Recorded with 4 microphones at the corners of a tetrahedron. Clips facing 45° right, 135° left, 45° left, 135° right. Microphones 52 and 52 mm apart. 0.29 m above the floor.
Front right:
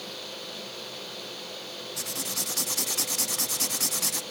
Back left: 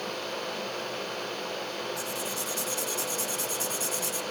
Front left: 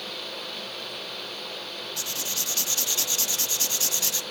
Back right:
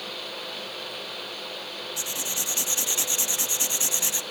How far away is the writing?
About 0.7 m.